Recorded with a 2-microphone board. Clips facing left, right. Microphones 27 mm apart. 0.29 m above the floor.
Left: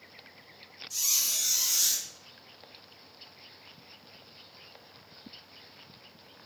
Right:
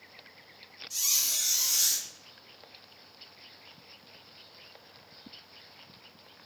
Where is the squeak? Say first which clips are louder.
Even; 5° right (ahead or behind), 1.8 m.